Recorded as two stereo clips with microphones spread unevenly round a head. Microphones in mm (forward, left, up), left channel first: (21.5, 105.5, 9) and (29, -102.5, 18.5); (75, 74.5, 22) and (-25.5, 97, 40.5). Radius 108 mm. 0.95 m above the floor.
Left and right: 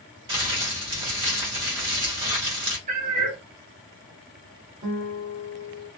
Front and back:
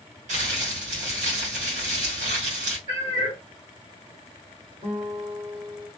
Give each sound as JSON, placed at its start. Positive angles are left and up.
{"t": 0.3, "sound": "crumpling", "azimuth_deg": -155, "distance_m": 1.4}
{"t": 2.9, "sound": "a cat meowing", "azimuth_deg": -135, "distance_m": 1.4}
{"t": 4.8, "sound": "a guitar", "azimuth_deg": -145, "distance_m": 1.5}